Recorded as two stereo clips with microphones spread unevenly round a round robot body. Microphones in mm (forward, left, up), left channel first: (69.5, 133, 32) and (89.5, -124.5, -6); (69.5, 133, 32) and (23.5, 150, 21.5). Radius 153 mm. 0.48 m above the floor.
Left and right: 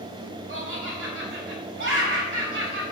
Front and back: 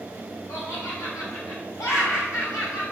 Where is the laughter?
40° right, 2.5 m.